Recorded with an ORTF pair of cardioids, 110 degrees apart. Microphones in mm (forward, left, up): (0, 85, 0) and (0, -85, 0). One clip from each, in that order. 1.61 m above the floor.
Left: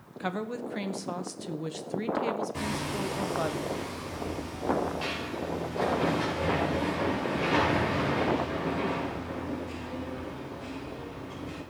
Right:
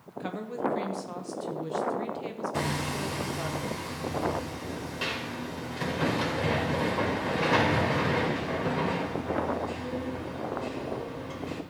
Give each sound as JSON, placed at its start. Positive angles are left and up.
{"t": 0.2, "sound": "a woman speaking", "azimuth_deg": 30, "distance_m": 1.2}
{"t": 2.5, "sound": "hammering", "azimuth_deg": -35, "distance_m": 3.0}